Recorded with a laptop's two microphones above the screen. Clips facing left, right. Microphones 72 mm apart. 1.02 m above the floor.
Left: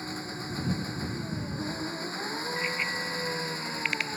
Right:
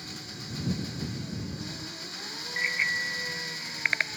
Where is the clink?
No clink in this recording.